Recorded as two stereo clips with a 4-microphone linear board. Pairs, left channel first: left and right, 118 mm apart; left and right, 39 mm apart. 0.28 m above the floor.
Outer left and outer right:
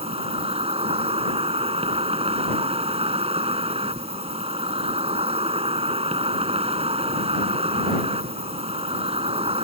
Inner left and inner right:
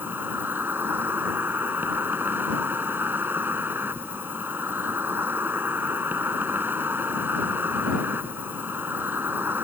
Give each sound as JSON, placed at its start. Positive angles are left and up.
{"t": 0.0, "sound": "an insect", "side_deg": -60}